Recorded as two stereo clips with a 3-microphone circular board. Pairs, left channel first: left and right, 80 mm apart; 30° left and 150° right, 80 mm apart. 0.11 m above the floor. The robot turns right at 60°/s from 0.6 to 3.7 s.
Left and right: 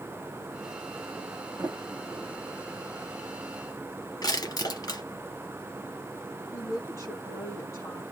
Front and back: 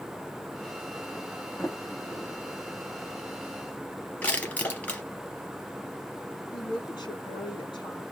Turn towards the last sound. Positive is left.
turn(degrees=40)